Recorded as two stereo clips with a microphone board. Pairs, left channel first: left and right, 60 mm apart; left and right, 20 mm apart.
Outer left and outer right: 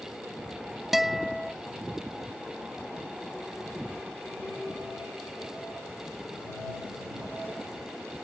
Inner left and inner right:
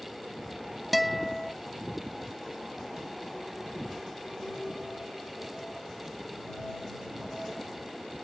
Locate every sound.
0.9 s a guitar: 5° right (ahead or behind)